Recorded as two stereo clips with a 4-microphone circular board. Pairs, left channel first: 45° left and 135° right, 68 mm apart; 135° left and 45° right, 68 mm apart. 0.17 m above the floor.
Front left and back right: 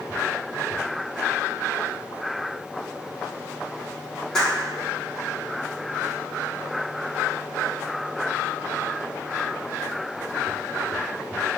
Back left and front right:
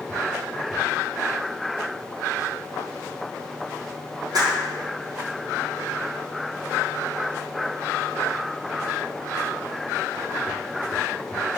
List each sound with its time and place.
4.3 s a clap: 40° right, 5.5 m